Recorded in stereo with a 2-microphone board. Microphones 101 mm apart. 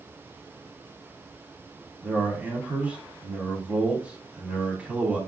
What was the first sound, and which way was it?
A man speaking, 15° right (ahead or behind).